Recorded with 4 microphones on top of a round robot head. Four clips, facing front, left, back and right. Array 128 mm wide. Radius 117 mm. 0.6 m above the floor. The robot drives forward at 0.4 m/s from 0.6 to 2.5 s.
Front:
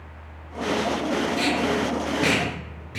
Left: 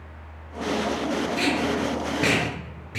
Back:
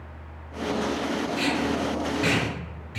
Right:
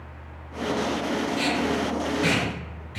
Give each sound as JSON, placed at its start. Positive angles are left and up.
{"t": 1.4, "sound": "tape being pulled", "azimuth_deg": 50, "distance_m": 4.5}